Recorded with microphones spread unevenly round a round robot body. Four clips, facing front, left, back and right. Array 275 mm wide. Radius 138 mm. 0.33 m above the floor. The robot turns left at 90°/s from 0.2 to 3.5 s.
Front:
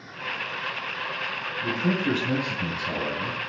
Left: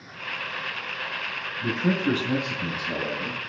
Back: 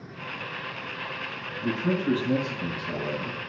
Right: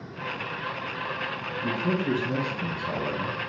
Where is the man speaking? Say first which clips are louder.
Left 3 dB, even; 85° left, 3.5 m; by 3.4 s 80° right, 3.5 m.